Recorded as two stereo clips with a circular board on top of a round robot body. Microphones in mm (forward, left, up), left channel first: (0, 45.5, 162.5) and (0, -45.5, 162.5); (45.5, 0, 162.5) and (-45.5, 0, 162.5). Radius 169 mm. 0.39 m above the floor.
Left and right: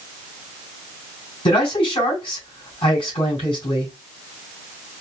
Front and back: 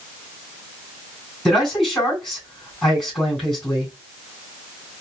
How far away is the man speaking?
About 3.5 m.